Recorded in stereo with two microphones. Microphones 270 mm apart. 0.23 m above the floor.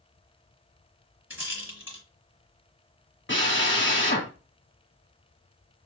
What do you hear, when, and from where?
1.3 s a rattle: 55° left (ahead or behind), 2.0 m
3.3 s a drill: 45° left (ahead or behind), 1.4 m